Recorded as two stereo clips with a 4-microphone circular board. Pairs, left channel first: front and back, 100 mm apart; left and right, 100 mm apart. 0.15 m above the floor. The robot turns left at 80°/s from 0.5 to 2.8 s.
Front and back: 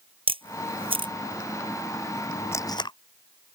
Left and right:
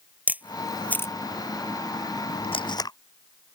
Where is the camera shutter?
165° right; by 1.1 s 145° left.